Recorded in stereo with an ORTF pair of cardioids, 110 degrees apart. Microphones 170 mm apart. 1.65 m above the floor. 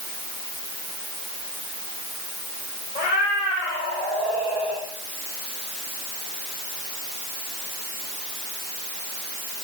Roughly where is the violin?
No violin in this recording.